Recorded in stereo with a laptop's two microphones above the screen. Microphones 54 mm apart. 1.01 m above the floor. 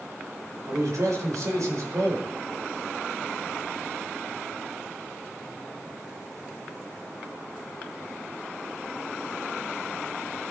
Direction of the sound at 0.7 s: 75° right (ahead or behind).